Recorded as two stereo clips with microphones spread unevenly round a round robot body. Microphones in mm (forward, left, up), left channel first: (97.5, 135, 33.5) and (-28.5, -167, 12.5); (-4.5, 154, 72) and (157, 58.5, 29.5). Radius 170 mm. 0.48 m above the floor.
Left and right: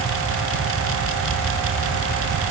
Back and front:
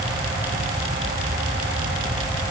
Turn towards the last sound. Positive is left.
No sound to turn to.